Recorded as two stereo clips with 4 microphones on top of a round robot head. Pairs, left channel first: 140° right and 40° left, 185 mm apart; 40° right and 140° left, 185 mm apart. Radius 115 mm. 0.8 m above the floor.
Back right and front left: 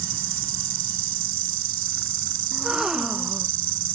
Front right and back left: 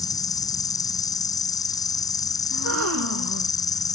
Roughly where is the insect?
Ahead left.